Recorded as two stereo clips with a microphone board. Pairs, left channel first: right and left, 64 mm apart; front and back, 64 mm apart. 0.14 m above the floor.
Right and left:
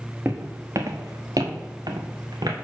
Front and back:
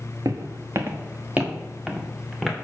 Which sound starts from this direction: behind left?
Footsteps, at 0.2 s.